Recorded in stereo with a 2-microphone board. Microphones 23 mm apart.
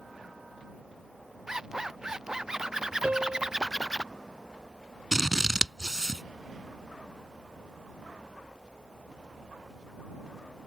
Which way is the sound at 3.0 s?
70° right (ahead or behind).